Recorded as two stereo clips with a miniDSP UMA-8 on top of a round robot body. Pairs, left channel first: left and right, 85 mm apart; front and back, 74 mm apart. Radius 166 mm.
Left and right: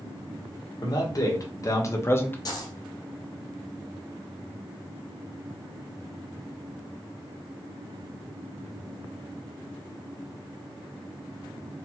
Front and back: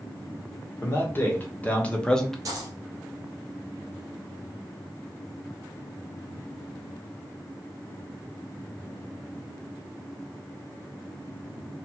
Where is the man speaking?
55° left, 1.7 m; by 2.4 s 80° left, 1.0 m.